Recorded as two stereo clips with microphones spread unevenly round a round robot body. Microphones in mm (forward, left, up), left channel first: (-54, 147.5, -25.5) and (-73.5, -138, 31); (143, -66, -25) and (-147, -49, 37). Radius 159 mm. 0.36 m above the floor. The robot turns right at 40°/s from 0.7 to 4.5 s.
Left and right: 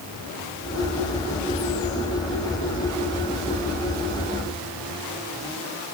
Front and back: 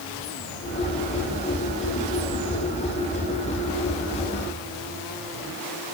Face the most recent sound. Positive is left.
No sound to turn to.